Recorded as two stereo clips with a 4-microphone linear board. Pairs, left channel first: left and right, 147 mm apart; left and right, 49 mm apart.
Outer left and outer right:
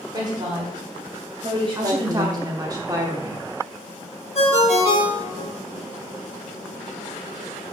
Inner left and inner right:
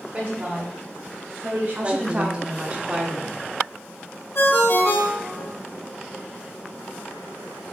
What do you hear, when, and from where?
0.1 s a woman speaking: 25° right (ahead or behind), 2 m; by 2.5 s 40° right (ahead or behind), 1.7 m
1.8 s a woman speaking: 25° right (ahead or behind), 0.9 m
4.3 s a ringtone: 50° left (ahead or behind), 1.3 m